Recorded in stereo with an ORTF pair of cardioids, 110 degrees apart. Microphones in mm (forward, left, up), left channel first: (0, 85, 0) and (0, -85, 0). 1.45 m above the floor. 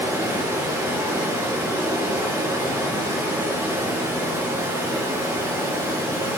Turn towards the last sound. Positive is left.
turn(degrees=-15)